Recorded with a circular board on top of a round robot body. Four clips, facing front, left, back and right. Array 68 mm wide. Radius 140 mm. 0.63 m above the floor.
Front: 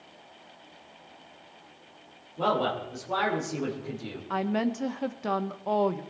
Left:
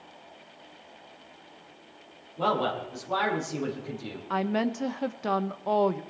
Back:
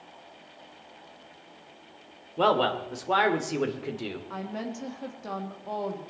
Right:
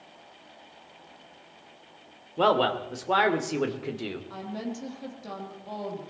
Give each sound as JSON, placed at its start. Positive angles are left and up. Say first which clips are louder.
{"t": 2.4, "sound": "a man speaking", "louder": "right 4 dB, back 3 dB", "azimuth_deg": -130, "distance_m": 2.5}
{"t": 4.3, "sound": "a woman speaking", "louder": "left 8 dB, front 7 dB", "azimuth_deg": 60, "distance_m": 1.3}